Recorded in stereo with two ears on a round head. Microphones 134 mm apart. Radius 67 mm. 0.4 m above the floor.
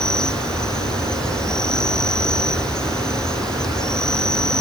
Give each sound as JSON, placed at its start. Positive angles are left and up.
{"t": 0.0, "sound": "an insect", "side_deg": 5}